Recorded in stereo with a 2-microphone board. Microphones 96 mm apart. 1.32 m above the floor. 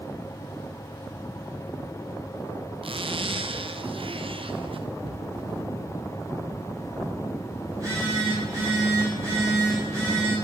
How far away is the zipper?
About 0.6 m.